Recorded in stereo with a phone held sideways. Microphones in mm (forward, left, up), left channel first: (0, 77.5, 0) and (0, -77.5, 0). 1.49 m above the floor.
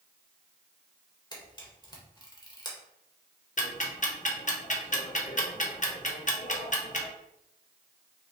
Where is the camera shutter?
30° left (ahead or behind), 1.4 m.